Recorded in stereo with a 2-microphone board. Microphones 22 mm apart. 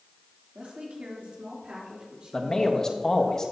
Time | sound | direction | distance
0.6 | a woman speaking | 70° right (ahead or behind) | 3 m
2.3 | a man speaking | 30° left (ahead or behind) | 1.3 m